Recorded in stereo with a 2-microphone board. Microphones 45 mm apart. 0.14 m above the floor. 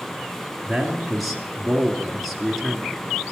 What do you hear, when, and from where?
0.7 s a man speaking: centre (ahead or behind), 2 m